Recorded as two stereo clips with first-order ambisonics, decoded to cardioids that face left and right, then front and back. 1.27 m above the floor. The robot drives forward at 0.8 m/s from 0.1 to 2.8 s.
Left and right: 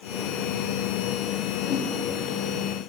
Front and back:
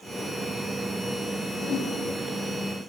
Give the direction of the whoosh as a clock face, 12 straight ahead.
10 o'clock.